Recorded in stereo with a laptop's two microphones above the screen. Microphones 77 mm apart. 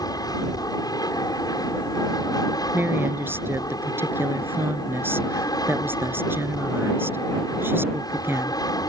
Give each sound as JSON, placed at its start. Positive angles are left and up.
{"t": 0.0, "sound": "an aircraft", "side_deg": 55}
{"t": 2.7, "sound": "a woman speaking", "side_deg": -30}